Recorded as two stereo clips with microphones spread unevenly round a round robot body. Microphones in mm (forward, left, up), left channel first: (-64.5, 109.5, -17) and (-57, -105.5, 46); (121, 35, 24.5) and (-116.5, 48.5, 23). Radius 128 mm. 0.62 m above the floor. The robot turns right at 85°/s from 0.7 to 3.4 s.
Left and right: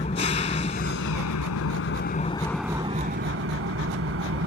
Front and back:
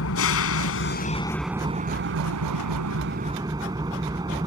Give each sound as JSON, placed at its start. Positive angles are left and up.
{"t": 0.0, "sound": "an engine running", "azimuth_deg": 25}